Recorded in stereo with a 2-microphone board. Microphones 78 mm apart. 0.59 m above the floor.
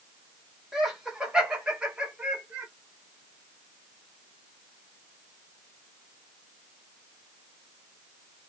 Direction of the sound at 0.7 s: 5° right (ahead or behind).